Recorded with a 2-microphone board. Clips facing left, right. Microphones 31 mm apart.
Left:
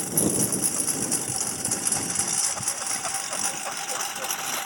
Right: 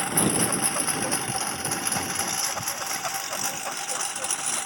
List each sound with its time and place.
0.0 s a lawn mower: 45° right (ahead or behind); by 4.7 s 5° left (ahead or behind)